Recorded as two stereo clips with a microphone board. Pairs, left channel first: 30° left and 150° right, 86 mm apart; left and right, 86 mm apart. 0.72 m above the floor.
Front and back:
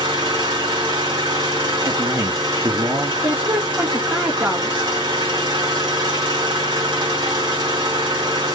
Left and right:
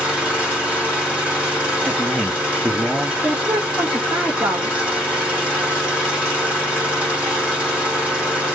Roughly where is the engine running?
Behind.